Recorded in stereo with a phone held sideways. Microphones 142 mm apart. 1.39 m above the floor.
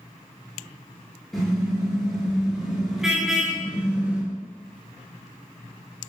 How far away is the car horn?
About 9 m.